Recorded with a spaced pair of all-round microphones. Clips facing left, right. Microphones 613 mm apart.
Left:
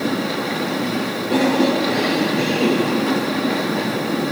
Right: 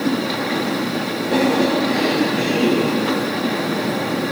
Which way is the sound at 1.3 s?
5° right (ahead or behind).